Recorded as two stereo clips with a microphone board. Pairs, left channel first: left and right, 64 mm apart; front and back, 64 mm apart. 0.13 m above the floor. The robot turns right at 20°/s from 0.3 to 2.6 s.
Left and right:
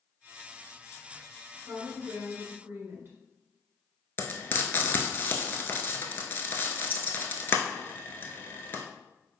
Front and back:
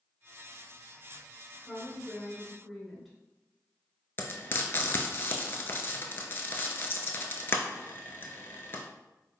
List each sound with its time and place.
1.6 s a woman speaking: 105° right, 1.7 m; by 3.2 s 85° right, 1.7 m
4.2 s frying: 45° left, 0.6 m